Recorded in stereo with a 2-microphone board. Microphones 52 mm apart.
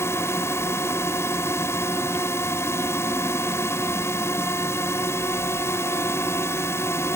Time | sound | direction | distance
0.0 | a drone | 55° left (ahead or behind) | ?